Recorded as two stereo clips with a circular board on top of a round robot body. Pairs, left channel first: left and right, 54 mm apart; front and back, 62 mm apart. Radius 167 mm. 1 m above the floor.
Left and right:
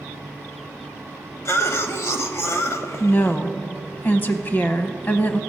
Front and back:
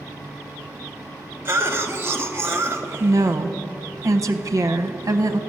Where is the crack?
I don't hear a crack.